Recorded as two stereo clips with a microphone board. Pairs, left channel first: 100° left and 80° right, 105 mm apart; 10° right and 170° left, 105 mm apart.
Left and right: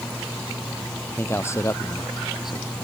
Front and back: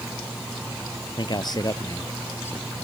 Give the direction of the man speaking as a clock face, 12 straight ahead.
11 o'clock.